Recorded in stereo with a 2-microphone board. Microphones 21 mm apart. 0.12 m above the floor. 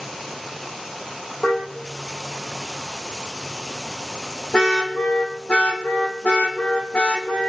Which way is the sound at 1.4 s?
25° left (ahead or behind).